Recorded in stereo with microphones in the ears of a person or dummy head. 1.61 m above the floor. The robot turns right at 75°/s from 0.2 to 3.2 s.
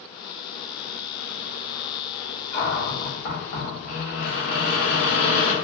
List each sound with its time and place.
2.5 s a cupboard door: 30° left, 1.1 m; by 5.5 s 80° left, 1.1 m